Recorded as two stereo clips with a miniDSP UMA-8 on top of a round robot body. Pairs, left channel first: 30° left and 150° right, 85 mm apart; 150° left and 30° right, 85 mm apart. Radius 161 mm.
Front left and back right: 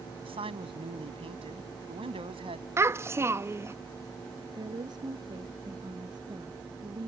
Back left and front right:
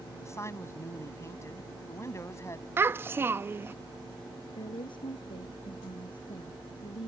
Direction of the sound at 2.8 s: 90° right.